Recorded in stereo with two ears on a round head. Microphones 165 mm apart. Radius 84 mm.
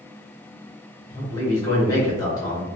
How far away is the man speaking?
About 1.2 m.